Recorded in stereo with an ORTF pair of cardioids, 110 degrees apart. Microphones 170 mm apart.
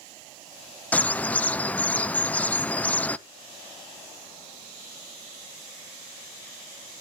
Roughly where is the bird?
Ahead.